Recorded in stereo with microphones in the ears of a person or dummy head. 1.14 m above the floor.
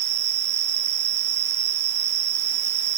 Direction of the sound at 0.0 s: 75° right (ahead or behind).